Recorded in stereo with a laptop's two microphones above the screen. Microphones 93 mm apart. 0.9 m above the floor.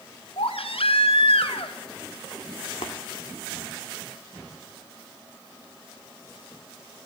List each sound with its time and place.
0.4 s a baby crying: 80° left, 1.5 m
2.8 s tapping: 80° left, 1.8 m